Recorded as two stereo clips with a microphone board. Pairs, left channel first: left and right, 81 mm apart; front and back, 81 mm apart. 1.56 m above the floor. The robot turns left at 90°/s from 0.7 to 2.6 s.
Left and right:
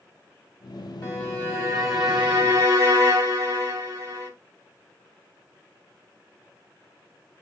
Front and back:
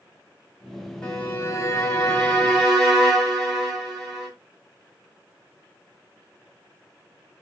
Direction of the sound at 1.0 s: 65° left.